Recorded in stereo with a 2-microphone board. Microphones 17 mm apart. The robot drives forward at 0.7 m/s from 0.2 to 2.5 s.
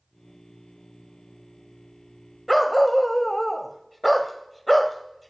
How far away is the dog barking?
About 0.6 m.